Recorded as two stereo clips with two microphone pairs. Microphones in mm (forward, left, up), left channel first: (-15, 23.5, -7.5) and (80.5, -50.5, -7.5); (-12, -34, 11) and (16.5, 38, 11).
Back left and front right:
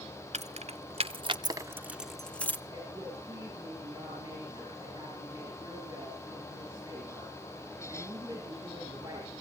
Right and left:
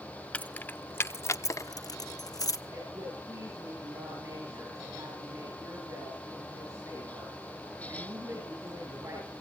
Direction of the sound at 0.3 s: 40° right.